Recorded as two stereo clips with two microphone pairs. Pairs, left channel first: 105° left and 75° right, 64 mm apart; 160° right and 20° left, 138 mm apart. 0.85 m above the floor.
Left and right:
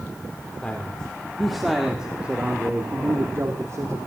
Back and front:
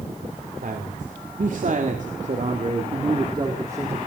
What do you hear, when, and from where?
0.6 s a man speaking: 30° left, 3 m; by 4.0 s 50° right, 3 m